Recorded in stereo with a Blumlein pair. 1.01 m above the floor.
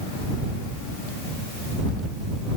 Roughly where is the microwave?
I don't hear a microwave.